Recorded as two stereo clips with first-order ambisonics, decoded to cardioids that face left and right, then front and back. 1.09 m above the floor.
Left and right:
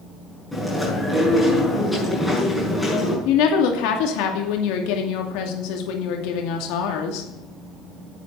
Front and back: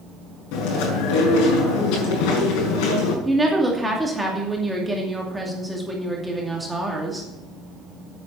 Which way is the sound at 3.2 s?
95° left.